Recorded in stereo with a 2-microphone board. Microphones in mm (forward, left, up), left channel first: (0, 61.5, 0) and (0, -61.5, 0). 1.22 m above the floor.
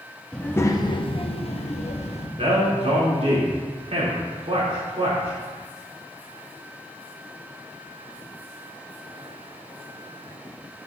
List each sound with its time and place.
0.3 s a child speaking: 5° left (ahead or behind), 0.7 m; by 2.3 s 60° left (ahead or behind), 1.4 m
2.4 s a man speaking: 60° right (ahead or behind), 3 m